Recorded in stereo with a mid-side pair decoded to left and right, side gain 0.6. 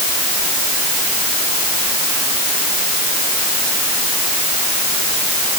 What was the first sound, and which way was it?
Only background noise.